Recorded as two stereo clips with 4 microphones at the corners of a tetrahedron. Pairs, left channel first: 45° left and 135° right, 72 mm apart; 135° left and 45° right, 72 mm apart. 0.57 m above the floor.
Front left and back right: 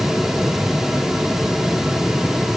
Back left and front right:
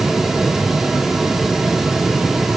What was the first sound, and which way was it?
Only background noise.